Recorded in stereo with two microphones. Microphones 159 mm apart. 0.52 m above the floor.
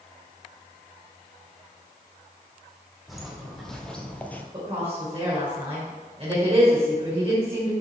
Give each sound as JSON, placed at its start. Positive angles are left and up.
{"t": 3.1, "sound": "footsteps", "side_deg": 0, "distance_m": 1.6}
{"t": 4.5, "sound": "a woman speaking", "side_deg": -40, "distance_m": 2.5}